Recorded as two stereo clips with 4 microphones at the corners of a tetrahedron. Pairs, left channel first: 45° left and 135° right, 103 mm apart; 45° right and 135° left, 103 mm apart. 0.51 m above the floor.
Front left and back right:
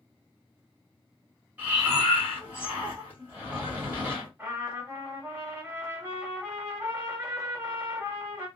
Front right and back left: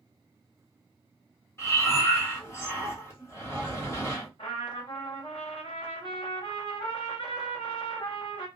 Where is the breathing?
75° right, 1.4 m.